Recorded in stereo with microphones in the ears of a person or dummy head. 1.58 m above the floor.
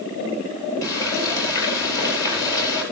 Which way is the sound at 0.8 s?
20° left (ahead or behind).